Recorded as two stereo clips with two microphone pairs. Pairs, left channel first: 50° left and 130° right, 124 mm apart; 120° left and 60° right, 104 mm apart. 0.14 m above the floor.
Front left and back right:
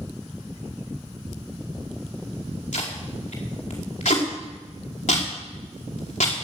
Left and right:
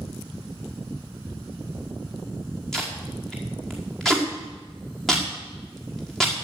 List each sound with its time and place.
2.7 s tape being pulled: 35° left, 5 m